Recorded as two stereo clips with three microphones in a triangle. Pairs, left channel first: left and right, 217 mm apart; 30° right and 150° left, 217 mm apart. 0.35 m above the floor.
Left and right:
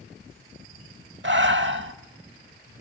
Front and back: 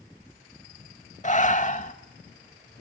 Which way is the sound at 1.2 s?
80° right.